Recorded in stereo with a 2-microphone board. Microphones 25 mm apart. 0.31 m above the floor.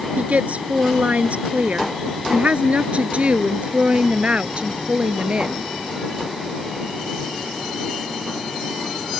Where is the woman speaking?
75° right (ahead or behind); by 5.7 s 45° right (ahead or behind).